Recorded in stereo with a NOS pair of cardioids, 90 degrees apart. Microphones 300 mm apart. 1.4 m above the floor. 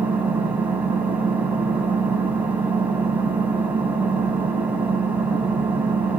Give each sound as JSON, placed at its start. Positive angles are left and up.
{"t": 0.0, "sound": "an engine running", "azimuth_deg": -5, "distance_m": 5.0}